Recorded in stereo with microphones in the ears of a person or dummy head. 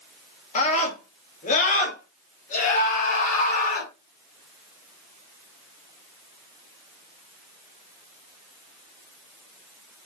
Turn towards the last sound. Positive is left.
turn(degrees=50)  # may be behind; listen again after turning